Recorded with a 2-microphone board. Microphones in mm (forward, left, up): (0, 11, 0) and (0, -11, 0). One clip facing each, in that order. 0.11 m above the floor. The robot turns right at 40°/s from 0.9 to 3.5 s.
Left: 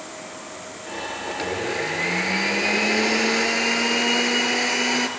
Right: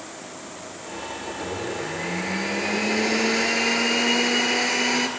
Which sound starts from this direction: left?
A blender, at 1.3 s.